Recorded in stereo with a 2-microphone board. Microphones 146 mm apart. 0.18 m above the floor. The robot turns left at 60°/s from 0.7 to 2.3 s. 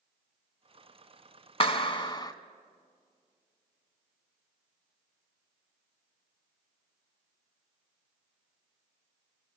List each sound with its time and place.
1.6 s a clap: 85° left, 1.2 m; by 2.3 s 45° left, 1.2 m